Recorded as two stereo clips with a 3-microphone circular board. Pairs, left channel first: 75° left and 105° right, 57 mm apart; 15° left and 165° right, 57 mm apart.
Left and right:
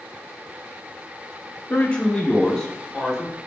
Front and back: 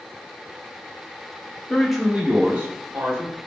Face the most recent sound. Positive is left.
turn(degrees=160)